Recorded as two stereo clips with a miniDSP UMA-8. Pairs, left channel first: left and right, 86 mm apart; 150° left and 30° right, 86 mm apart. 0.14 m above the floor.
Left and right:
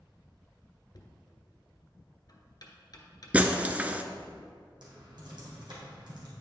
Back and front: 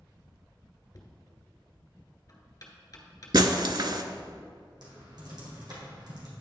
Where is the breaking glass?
20° right, 0.6 m.